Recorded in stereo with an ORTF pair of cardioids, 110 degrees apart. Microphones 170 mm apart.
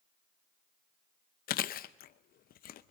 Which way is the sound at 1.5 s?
60° left.